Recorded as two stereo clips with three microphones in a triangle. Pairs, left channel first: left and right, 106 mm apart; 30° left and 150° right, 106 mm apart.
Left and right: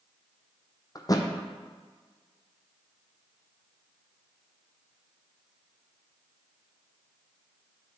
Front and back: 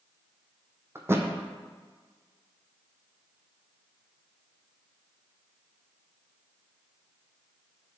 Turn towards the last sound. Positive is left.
turn(degrees=145)